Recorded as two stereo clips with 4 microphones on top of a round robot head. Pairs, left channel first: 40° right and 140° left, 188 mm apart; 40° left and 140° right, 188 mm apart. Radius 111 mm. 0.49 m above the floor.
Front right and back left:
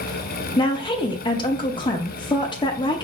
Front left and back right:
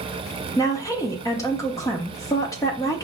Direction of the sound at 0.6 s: 15° right.